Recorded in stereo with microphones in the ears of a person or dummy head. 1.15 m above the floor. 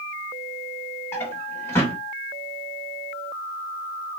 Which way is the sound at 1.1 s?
10° left (ahead or behind).